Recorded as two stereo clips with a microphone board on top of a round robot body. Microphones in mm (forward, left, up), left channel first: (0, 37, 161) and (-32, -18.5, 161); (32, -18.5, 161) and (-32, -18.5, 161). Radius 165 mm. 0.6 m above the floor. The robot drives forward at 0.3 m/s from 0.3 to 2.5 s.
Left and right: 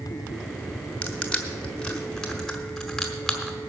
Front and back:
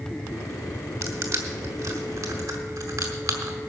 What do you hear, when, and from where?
1.0 s crushing: 135° left, 1.3 m; by 3.5 s 145° left, 1.6 m